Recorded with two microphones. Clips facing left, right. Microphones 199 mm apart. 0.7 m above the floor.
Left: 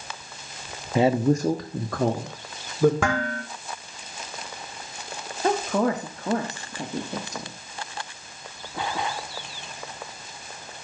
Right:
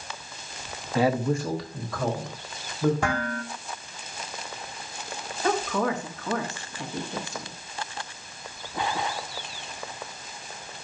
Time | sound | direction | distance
0.9 | a man speaking | 15° left (ahead or behind) | 0.6 m
3.0 | dishes clattering | 75° left (ahead or behind) | 1.8 m
5.4 | a woman speaking | 35° left (ahead or behind) | 1.2 m